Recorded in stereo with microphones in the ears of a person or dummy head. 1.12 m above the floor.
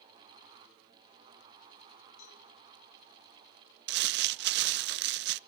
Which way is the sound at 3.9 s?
50° right (ahead or behind).